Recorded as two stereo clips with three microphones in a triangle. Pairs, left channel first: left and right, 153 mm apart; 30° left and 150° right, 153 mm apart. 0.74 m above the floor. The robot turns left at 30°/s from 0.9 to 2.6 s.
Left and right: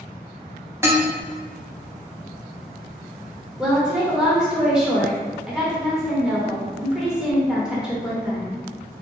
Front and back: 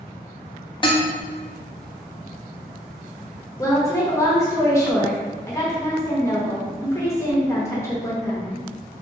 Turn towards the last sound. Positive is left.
turn(degrees=-15)